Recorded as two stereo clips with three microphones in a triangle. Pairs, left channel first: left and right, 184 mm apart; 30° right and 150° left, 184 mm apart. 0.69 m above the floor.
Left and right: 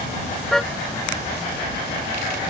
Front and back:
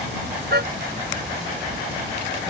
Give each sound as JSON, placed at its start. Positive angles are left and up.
{"t": 0.5, "sound": "a car horn", "azimuth_deg": 175}